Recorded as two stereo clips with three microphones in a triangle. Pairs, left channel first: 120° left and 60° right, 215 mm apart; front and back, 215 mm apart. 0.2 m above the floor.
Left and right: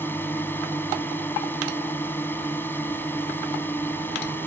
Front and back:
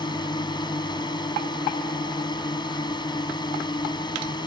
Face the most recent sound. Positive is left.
turn(degrees=50)